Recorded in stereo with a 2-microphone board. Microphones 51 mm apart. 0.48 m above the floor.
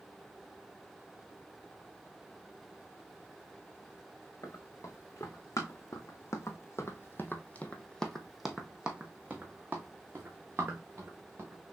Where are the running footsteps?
75° left (ahead or behind), 1.8 m; by 11.7 s 45° right (ahead or behind), 2 m.